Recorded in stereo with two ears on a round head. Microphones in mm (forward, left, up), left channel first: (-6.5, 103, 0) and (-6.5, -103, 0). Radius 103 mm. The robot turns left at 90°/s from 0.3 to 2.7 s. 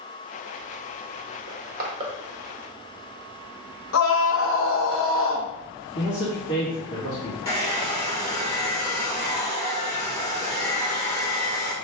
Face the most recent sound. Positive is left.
turn(degrees=15)  # may be behind; listen again after turning